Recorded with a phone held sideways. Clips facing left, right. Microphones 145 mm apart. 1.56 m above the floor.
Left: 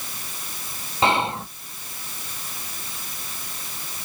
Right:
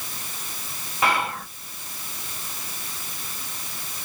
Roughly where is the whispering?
Left.